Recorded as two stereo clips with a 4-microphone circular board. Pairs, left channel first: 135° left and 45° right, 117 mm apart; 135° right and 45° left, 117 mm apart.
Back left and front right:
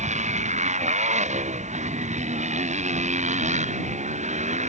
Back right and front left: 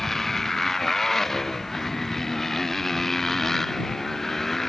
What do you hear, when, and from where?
0.0 s a motorcycle: 50° right